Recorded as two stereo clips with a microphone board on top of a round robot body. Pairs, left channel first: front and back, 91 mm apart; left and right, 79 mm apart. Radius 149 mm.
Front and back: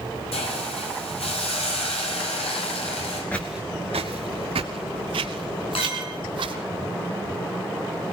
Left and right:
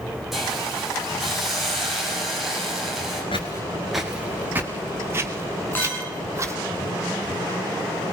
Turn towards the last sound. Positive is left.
turn(degrees=20)